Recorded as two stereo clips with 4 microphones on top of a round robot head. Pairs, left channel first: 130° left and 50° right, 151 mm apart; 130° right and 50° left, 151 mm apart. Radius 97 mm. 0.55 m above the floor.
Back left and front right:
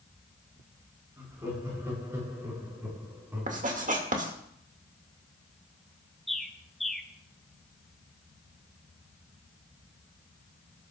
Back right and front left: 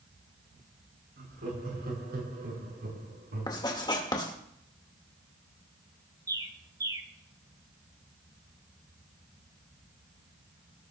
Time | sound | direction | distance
1.2 | laughter | 25° left | 8 m
3.5 | writing | 70° right | 2 m
6.3 | a bird | 40° left | 1.2 m